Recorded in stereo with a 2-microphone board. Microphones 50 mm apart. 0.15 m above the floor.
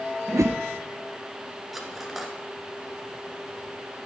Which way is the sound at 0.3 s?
70° right (ahead or behind).